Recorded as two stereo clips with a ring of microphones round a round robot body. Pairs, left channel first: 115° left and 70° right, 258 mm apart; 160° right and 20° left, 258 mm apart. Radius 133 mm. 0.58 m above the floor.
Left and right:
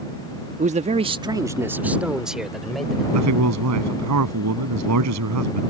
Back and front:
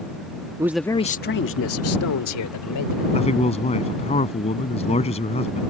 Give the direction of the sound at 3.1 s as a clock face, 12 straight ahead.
3 o'clock.